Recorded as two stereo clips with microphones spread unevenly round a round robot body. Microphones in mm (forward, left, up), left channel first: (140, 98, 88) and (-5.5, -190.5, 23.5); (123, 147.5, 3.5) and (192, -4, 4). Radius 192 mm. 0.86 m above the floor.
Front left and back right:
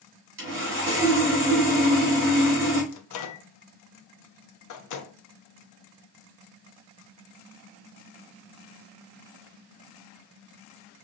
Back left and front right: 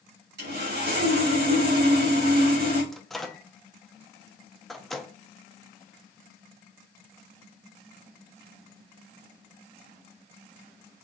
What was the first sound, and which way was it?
Sawing, 65° right.